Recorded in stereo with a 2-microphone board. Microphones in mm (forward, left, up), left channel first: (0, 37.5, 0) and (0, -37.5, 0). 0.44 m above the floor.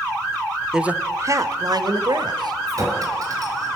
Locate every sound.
0.7 s a man speaking: 5° right (ahead or behind), 1.0 m; by 2.6 s 70° right (ahead or behind), 2.5 m
2.7 s a clink: 50° right (ahead or behind), 5 m